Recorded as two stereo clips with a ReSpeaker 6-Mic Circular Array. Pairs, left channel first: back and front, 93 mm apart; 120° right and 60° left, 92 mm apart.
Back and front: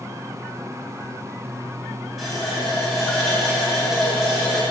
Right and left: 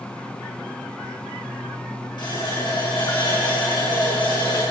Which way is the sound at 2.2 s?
90° right.